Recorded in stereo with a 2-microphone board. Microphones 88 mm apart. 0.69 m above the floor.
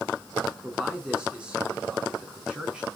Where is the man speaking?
10° right (ahead or behind), 7 m.